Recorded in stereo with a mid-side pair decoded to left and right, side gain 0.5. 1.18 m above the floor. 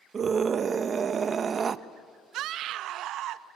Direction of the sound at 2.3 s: 70° right.